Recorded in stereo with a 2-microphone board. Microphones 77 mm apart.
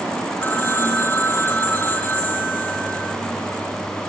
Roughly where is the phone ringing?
Left.